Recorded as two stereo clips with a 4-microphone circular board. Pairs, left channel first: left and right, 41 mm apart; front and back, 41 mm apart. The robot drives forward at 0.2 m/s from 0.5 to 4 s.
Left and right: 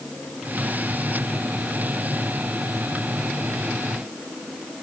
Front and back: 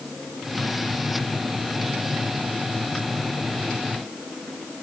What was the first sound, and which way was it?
Only background noise.